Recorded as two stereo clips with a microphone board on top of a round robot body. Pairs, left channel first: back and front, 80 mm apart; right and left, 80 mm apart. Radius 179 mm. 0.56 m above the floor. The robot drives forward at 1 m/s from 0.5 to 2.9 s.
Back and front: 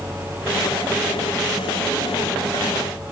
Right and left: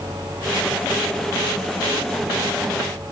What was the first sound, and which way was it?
Only background noise.